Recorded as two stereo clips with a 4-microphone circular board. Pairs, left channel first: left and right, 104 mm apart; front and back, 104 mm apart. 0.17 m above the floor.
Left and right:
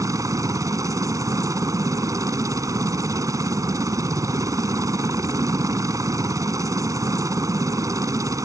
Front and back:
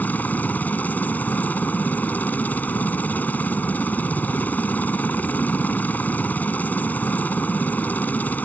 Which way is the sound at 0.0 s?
65° right.